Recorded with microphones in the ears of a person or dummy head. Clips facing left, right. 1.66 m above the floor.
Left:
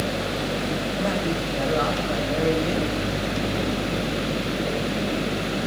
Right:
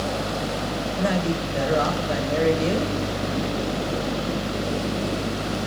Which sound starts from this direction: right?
A man speaking, at 1.0 s.